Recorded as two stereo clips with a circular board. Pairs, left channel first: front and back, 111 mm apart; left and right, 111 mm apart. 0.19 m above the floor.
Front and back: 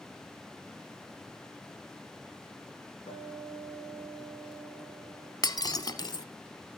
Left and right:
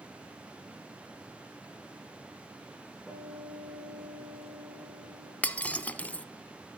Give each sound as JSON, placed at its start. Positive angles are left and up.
{"t": 3.1, "sound": "a guitar", "azimuth_deg": -5, "distance_m": 7.5}
{"t": 5.4, "sound": "breaking glass", "azimuth_deg": 20, "distance_m": 0.7}